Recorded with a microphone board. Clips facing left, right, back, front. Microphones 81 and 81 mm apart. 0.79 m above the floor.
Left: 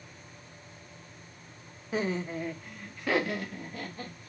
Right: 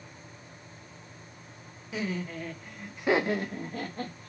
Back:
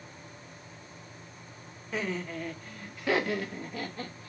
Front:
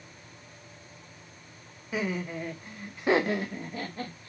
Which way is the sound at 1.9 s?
80° left.